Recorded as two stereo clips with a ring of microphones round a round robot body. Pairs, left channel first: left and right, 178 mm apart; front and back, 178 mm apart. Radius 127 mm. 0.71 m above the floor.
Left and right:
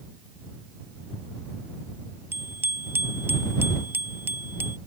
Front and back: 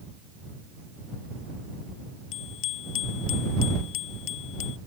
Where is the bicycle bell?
10° right.